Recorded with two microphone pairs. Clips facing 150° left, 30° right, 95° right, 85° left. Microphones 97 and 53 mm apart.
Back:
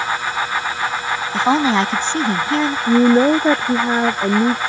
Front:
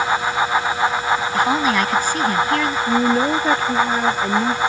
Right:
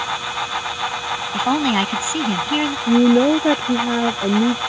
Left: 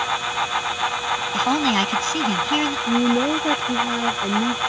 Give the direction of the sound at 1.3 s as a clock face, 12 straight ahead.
6 o'clock.